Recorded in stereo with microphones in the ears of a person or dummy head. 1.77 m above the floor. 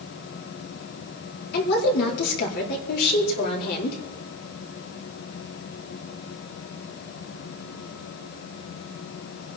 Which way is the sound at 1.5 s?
55° left (ahead or behind).